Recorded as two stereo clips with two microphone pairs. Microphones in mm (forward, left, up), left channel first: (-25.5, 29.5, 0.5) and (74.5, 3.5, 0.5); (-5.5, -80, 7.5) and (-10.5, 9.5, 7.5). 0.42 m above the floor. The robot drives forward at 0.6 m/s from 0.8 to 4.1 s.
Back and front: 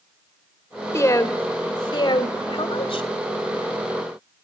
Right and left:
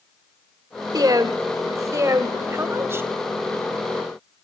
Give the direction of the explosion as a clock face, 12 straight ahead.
No explosion in this recording.